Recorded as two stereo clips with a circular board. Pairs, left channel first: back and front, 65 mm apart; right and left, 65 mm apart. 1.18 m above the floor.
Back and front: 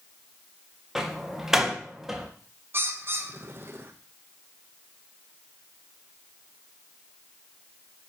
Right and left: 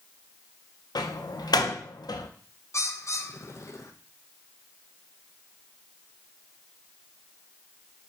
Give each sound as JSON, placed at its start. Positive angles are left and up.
{"t": 0.9, "sound": "a door slam", "azimuth_deg": -85, "distance_m": 0.5}
{"t": 2.7, "sound": "a bird", "azimuth_deg": -50, "distance_m": 0.5}